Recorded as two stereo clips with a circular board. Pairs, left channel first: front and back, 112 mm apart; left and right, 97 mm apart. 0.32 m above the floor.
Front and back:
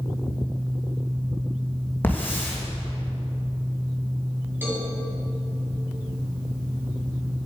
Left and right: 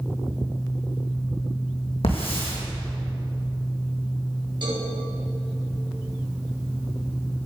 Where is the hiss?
70° left, 3 m.